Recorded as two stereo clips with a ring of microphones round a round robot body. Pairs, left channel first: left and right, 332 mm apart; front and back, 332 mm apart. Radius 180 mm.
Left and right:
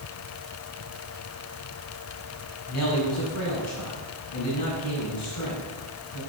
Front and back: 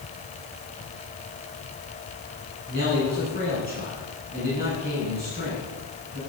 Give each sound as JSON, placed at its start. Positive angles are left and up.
{"t": 2.7, "sound": "a man speaking", "azimuth_deg": 120, "distance_m": 5.5}